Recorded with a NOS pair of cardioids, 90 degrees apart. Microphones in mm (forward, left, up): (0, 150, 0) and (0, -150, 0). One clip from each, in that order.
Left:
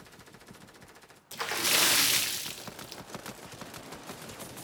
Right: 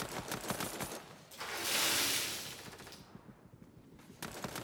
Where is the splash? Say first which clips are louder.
Left 9 dB; 55° left, 0.6 m.